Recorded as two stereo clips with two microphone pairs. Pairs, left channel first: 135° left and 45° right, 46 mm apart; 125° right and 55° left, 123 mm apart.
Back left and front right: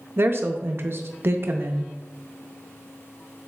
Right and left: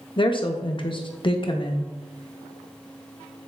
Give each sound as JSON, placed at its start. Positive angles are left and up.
{"t": 0.2, "sound": "a woman speaking", "azimuth_deg": -80, "distance_m": 0.6}